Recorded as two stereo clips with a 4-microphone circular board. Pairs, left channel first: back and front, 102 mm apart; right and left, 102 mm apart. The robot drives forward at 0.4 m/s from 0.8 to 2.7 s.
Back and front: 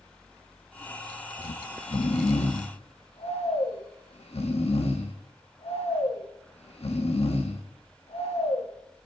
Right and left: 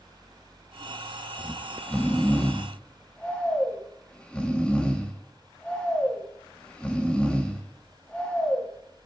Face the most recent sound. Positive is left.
turn(degrees=-170)